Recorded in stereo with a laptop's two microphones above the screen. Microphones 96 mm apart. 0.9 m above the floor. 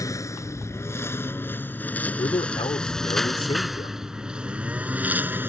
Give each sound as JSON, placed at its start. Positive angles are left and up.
{"t": 0.0, "sound": "a lawn mower", "side_deg": 35}
{"t": 2.2, "sound": "a man speaking", "side_deg": 75}